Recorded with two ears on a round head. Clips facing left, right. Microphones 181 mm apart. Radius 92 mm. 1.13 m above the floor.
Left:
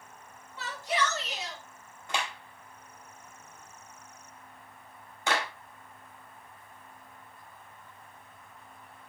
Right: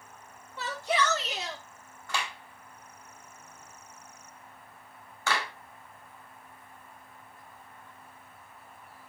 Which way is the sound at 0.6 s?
55° right (ahead or behind).